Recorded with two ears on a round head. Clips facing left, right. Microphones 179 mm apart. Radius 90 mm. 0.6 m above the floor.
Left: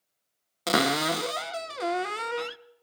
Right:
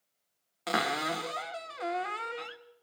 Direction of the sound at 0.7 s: 50° left (ahead or behind).